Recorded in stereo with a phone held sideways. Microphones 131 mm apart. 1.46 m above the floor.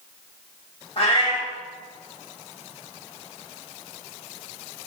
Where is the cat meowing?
45° left (ahead or behind), 1.0 m.